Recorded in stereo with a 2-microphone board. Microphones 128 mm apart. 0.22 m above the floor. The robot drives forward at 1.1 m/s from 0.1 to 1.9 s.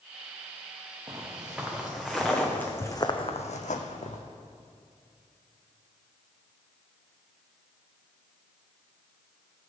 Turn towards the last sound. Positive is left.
turn(degrees=65)  # may be behind; listen again after turning